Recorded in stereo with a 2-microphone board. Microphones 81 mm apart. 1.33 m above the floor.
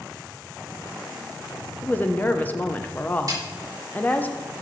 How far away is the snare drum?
About 3 m.